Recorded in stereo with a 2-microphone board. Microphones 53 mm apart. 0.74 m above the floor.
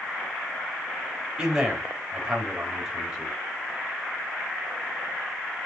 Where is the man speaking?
15° right (ahead or behind), 4 m.